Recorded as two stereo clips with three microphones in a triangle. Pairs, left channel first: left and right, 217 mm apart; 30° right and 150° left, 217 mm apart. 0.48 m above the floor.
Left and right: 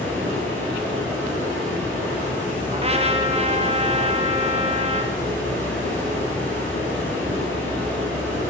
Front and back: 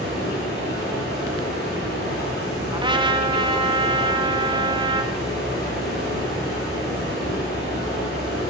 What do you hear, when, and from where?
0.0 s running water: 10° left, 5 m
2.7 s a trumpet: 145° right, 0.8 m